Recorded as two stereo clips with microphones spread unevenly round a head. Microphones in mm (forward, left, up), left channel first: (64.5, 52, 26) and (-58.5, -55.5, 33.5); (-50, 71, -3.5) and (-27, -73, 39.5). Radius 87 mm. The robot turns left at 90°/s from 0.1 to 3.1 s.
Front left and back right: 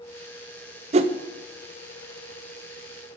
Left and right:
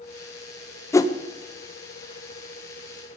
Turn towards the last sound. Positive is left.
turn(degrees=-15)